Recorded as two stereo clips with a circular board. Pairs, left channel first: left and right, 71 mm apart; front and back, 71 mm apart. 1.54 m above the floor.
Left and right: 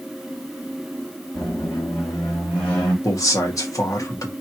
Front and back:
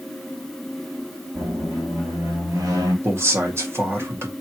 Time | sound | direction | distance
1.4 | a squeak | 160° left | 3.5 m
3.0 | a man speaking | 130° left | 2 m